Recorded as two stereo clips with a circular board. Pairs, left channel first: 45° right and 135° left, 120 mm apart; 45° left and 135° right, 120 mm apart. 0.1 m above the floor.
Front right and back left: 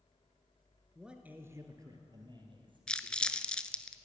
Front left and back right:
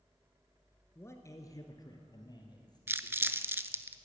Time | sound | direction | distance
0.9 | a man speaking | 50° left | 1.3 m
2.9 | crumpling | 110° right | 0.5 m